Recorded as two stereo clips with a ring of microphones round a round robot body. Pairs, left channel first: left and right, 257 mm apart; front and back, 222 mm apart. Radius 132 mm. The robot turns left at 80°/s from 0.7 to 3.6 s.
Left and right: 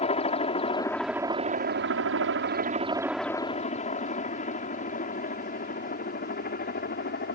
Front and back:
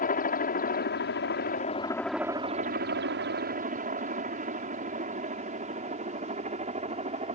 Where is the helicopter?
30° left; by 7.3 s 130° left.